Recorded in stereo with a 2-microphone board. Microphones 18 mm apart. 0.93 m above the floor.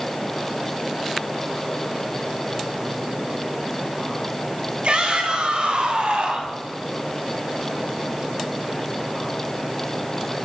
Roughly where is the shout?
Right.